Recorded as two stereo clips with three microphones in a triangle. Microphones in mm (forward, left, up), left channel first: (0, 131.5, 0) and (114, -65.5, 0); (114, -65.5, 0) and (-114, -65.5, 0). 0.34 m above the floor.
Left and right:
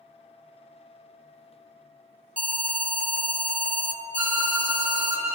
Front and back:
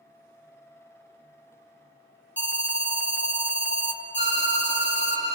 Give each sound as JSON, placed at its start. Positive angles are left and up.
{"t": 2.4, "sound": "an alarm", "azimuth_deg": -15, "distance_m": 1.1}
{"t": 4.2, "sound": "a violin", "azimuth_deg": 135, "distance_m": 3.5}